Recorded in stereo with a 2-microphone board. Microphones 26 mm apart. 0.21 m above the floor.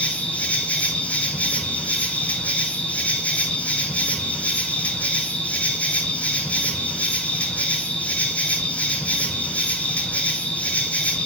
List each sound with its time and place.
0.0 s an insect: 75° left (ahead or behind), 1.9 m